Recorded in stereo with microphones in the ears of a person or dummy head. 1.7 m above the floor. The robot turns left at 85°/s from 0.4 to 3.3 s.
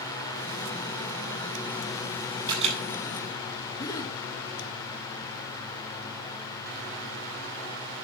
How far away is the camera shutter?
About 7 m.